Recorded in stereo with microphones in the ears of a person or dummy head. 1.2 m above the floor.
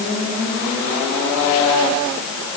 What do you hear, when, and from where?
Only background noise.